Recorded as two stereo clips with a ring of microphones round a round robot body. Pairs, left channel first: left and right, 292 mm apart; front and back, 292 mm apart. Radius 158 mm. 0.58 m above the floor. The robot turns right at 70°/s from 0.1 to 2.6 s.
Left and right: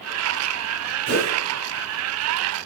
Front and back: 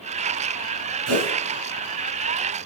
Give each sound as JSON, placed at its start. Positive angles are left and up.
{"t": 1.1, "sound": "a whoosh", "azimuth_deg": -145, "distance_m": 6.0}